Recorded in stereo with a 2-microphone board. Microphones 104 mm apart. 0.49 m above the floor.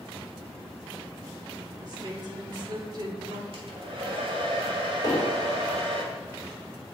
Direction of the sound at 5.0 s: 35° left (ahead or behind).